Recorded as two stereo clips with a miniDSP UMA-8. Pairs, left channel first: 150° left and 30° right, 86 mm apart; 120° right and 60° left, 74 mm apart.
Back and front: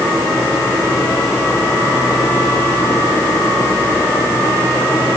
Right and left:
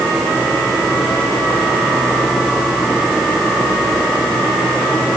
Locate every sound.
Only background noise.